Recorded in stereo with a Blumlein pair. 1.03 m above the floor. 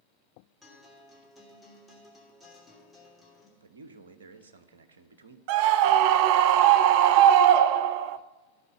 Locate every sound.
0.6 s a guitar: straight ahead, 3 m
3.6 s a man speaking: 65° right, 1.0 m
5.5 s a scream: 45° right, 0.6 m